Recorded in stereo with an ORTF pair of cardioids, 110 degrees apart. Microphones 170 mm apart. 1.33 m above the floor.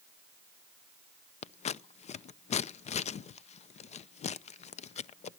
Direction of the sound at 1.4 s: 40° left.